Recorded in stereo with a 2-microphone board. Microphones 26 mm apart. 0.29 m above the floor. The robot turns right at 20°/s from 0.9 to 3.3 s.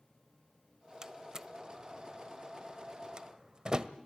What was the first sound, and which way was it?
A door slam, 20° right (ahead or behind).